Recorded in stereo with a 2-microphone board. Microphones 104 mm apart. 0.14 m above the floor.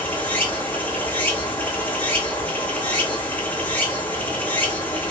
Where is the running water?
15° left (ahead or behind), 1.2 m.